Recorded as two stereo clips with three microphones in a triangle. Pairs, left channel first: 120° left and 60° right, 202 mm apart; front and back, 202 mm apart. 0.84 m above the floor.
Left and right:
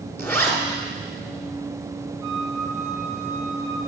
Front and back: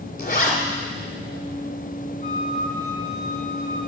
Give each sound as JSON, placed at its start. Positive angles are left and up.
{"t": 0.2, "sound": "a zipper", "azimuth_deg": 40, "distance_m": 1.8}
{"t": 2.2, "sound": "a flute", "azimuth_deg": -155, "distance_m": 5.5}